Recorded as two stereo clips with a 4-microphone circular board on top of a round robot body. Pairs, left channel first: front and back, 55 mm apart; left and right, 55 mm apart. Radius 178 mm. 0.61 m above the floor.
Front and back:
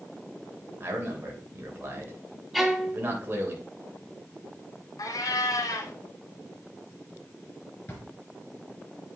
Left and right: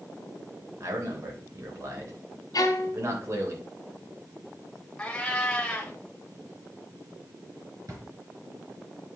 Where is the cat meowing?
15° left, 0.8 m.